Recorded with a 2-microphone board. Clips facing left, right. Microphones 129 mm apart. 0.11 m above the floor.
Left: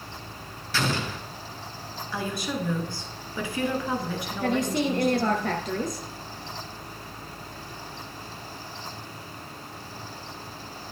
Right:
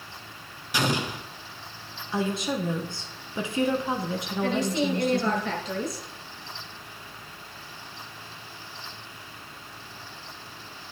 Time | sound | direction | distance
0.7 | an explosion | 15° right (ahead or behind) | 0.7 m
2.1 | a woman speaking | 25° right (ahead or behind) | 1.2 m
4.4 | a woman speaking | 50° left (ahead or behind) | 1.6 m